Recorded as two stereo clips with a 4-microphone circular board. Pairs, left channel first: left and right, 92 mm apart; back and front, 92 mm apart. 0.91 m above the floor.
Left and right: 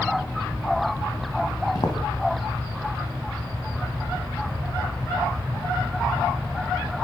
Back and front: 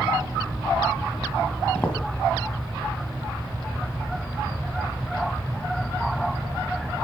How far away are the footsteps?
About 1.5 m.